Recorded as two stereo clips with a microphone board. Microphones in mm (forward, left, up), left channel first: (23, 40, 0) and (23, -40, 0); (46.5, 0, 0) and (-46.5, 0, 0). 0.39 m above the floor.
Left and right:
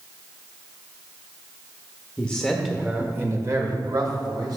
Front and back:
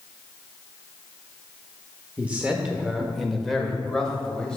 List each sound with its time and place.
2.2 s a man speaking: 130° left, 1.0 m; by 4.6 s 80° right, 1.9 m